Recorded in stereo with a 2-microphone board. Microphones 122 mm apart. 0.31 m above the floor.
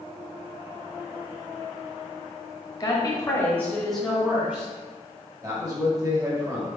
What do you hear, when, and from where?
2.8 s a woman speaking: 35° left (ahead or behind), 1.1 m; by 4.7 s 15° right (ahead or behind), 1.6 m
5.4 s a man speaking: 30° right (ahead or behind), 1.4 m